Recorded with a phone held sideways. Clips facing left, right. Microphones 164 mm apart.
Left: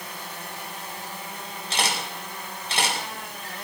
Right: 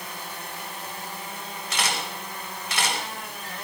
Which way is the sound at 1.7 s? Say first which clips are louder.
Left 1 dB; 30° left (ahead or behind).